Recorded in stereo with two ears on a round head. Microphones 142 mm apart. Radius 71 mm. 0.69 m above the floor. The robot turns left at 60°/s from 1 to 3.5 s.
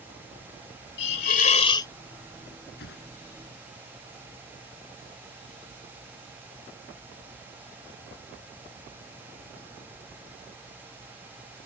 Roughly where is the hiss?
Left.